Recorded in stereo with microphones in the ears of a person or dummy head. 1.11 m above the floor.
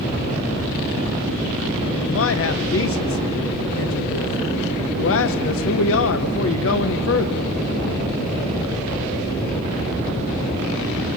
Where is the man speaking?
60° left (ahead or behind), 0.7 m.